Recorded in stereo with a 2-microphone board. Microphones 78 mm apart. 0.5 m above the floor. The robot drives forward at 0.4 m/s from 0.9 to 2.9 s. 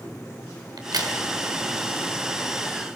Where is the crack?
55° right (ahead or behind), 2.5 m.